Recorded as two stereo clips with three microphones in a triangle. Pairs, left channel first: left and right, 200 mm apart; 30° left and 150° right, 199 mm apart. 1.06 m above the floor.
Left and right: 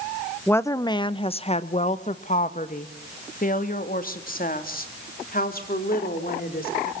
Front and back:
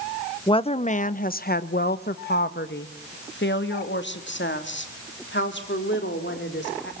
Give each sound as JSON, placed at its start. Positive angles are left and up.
{"t": 0.5, "sound": "a woman speaking", "azimuth_deg": 25, "distance_m": 0.7}